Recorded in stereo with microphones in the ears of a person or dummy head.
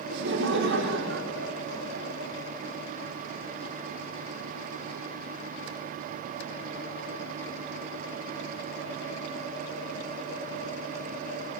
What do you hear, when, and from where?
0.1 s laughter: 75° right (ahead or behind), 4.5 m; by 2.3 s 80° right, 3.5 m